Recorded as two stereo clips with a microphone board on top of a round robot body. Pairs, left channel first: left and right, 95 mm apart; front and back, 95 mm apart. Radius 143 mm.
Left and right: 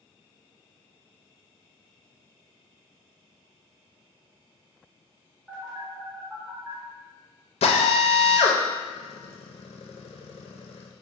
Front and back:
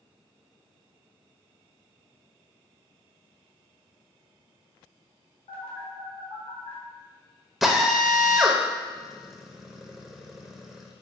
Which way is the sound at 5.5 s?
10° right.